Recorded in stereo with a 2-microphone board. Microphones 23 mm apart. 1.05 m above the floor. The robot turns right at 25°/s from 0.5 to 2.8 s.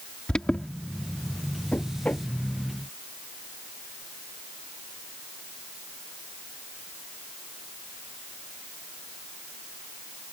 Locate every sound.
0.3 s an alarm: 40° left (ahead or behind); by 0.7 s 35° left (ahead or behind)
1.7 s knocking: 75° left (ahead or behind); by 2.3 s 60° left (ahead or behind)